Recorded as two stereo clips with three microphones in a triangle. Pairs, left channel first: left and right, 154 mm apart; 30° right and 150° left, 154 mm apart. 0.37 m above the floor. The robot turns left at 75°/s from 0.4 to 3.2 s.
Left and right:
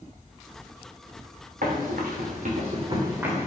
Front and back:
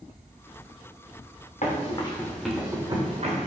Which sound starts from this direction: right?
Running footsteps, at 1.6 s.